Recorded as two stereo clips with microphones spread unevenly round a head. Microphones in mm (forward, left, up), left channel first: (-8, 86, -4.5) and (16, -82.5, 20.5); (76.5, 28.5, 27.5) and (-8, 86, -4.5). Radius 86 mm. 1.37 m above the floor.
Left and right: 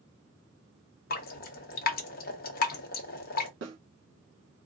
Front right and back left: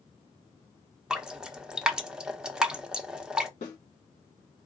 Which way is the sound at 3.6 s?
70° right.